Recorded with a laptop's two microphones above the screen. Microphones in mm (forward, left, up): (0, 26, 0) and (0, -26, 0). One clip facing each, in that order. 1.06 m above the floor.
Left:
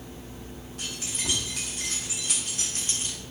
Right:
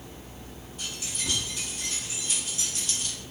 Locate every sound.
0.8 s keys jangling: 85° left, 1.5 m; by 3.2 s 15° left (ahead or behind), 0.6 m